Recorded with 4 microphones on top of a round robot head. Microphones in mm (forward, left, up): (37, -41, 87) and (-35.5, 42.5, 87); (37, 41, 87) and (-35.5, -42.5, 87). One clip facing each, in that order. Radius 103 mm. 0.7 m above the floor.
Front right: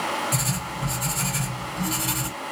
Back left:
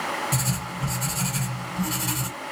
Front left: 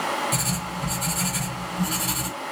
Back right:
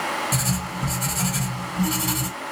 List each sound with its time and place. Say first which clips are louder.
0.3 s writing: front right 1 dB, back right 1 dB; 175° right, 1.5 m